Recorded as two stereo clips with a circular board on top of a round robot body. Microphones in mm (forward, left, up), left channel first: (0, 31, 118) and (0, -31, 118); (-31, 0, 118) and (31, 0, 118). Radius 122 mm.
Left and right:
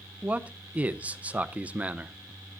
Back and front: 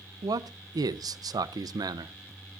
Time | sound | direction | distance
0.2 | a man speaking | 20° right | 0.5 m